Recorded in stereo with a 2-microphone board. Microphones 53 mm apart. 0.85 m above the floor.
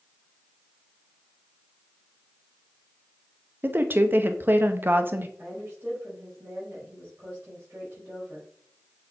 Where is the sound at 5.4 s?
35° right (ahead or behind), 5 m.